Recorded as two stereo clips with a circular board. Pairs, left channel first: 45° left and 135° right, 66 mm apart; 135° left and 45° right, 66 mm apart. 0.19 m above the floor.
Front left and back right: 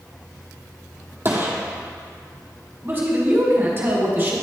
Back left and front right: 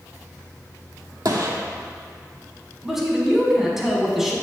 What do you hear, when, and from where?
1.2 s a gunshot: 75° right, 1.1 m
2.8 s a man speaking: 125° right, 1.3 m